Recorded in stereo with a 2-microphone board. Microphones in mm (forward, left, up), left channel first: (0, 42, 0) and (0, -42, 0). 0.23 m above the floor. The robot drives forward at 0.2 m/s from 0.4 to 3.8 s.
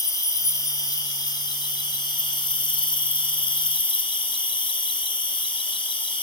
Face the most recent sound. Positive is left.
turn(degrees=80)